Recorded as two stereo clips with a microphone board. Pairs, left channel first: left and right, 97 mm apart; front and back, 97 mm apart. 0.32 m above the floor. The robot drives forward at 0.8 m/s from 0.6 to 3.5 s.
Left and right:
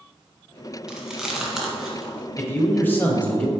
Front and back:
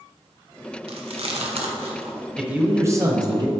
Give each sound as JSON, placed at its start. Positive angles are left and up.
{"t": 0.9, "sound": "chewing", "azimuth_deg": -175, "distance_m": 0.9}
{"t": 2.4, "sound": "a man speaking", "azimuth_deg": 110, "distance_m": 1.0}